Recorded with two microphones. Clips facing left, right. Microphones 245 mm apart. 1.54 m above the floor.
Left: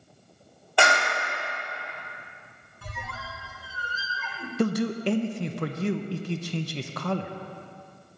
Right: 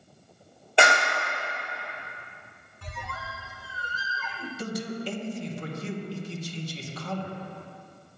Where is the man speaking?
70° left (ahead or behind), 0.7 m.